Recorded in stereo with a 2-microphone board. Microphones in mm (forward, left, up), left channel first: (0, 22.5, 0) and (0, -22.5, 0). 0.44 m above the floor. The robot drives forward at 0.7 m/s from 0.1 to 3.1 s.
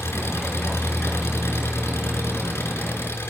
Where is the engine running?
80° left, 5 m; by 3.3 s 70° left (ahead or behind), 5.5 m.